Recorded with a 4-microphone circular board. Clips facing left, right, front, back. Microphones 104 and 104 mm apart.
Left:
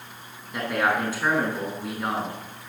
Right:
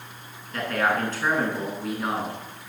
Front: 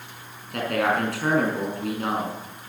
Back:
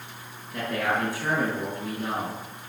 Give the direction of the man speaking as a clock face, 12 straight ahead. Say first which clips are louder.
Even, front 4 dB; 12 o'clock.